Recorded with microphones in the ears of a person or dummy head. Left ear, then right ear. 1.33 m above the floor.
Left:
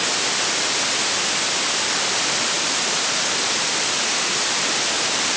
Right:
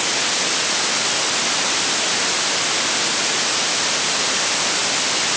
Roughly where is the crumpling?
I don't hear crumpling.